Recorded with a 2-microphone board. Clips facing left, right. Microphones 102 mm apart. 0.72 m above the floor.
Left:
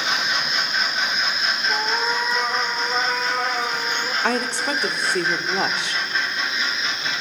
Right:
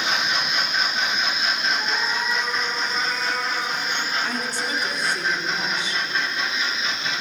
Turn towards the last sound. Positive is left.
turn(degrees=65)  # may be behind; listen again after turning